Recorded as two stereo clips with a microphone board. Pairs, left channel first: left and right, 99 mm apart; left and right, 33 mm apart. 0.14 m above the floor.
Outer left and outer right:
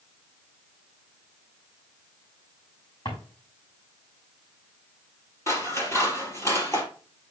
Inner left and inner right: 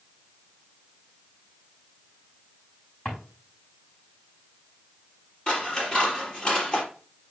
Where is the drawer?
50° left (ahead or behind), 5.5 m.